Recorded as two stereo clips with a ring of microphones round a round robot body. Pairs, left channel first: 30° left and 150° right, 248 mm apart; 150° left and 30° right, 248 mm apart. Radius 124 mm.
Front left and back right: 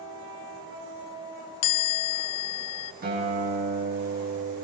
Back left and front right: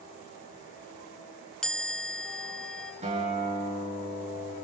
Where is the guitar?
95° right, 6.5 m.